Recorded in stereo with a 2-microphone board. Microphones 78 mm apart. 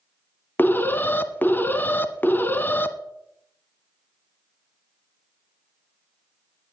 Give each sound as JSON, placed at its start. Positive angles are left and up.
{"t": 0.6, "sound": "an alarm", "side_deg": 25, "distance_m": 0.9}